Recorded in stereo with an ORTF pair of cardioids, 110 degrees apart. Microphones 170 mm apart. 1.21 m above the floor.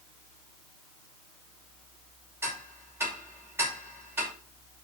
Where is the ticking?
15° right, 5.5 m.